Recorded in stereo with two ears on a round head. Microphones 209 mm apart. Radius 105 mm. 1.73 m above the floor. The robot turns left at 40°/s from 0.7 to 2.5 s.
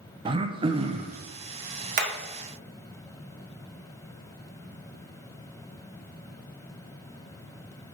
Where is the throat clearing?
20° right (ahead or behind), 0.6 m; by 1.2 s 30° right (ahead or behind), 0.6 m.